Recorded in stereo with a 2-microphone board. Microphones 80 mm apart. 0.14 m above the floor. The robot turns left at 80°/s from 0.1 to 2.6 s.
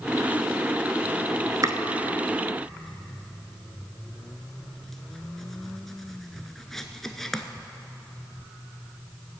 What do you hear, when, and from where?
1.6 s chopping: 50° right (ahead or behind), 0.6 m; by 7.4 s 5° left (ahead or behind), 0.6 m